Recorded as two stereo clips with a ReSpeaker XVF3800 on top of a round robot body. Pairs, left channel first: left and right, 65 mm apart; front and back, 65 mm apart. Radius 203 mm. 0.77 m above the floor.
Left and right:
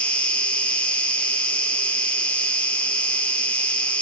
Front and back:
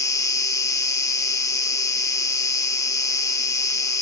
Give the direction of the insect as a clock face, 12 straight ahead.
11 o'clock.